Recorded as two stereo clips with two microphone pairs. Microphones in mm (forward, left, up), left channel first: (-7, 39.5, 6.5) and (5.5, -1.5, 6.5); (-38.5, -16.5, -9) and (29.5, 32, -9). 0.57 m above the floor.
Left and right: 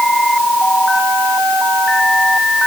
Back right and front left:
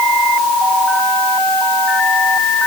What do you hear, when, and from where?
Only background noise.